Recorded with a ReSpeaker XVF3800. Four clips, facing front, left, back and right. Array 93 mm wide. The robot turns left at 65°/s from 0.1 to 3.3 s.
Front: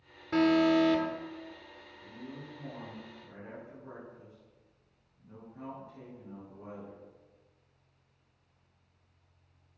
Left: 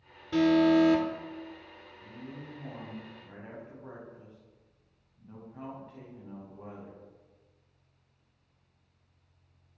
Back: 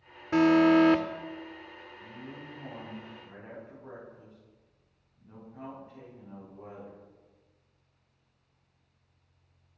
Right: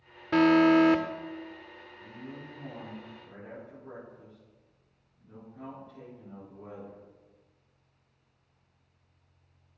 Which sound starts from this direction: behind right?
A man speaking, at 2.0 s.